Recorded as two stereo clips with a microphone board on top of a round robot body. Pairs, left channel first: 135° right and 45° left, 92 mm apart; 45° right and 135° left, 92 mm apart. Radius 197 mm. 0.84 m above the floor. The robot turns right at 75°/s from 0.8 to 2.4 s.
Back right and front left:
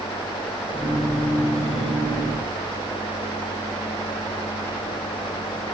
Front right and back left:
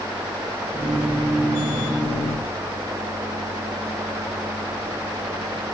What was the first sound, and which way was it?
Only background noise.